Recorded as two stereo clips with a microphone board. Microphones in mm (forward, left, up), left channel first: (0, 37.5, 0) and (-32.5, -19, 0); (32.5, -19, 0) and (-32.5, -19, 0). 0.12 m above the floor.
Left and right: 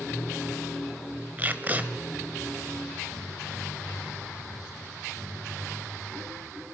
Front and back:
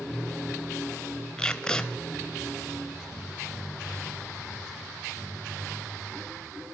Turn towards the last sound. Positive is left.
turn(degrees=-75)